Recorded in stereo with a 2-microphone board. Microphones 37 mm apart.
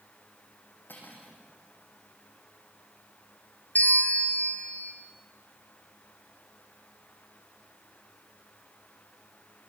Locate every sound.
0.9 s cutlery clinking: 70° left (ahead or behind), 5 m
3.8 s a bell: 50° left (ahead or behind), 2.5 m